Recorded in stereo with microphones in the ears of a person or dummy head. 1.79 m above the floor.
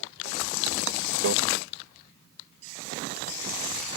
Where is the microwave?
80° right.